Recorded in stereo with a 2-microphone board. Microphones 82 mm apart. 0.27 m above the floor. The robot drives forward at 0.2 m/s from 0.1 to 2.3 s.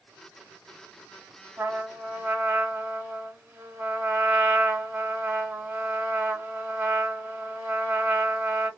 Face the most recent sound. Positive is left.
turn(degrees=-25)  # may be behind; listen again after turning